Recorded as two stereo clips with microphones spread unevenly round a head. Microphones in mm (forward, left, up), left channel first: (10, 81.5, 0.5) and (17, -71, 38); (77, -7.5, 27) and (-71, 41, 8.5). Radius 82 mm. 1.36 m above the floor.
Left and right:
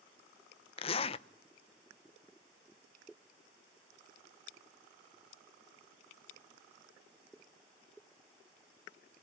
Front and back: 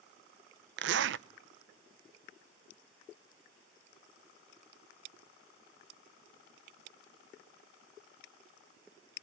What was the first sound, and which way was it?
A zipper, 150° left.